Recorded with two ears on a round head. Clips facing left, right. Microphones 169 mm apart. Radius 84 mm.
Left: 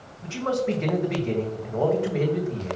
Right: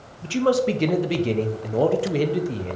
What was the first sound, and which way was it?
A man speaking, 40° right (ahead or behind).